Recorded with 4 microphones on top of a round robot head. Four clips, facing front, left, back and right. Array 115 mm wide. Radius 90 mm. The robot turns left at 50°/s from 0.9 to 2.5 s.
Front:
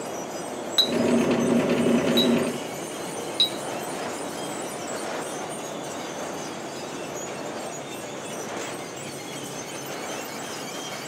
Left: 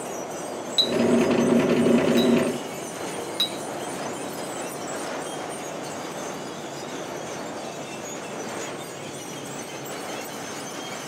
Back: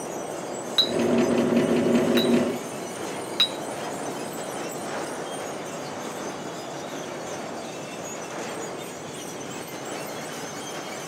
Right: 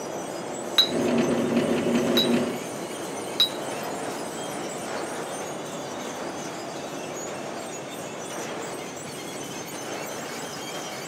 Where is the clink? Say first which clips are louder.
Left 3 dB, even; 90° right, 0.6 m; by 3.6 s 170° right, 0.6 m.